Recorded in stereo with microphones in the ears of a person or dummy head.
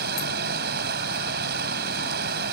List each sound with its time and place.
0.0 s running water: 55° right (ahead or behind)